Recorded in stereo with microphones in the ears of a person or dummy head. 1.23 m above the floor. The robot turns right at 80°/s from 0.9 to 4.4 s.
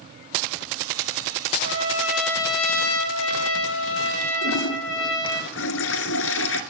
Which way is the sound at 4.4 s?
75° left (ahead or behind).